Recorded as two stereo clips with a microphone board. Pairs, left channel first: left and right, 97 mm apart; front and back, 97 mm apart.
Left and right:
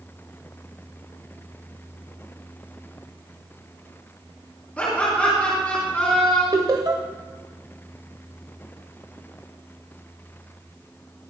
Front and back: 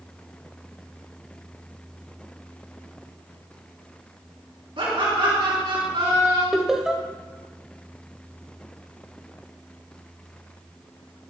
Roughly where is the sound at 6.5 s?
Right.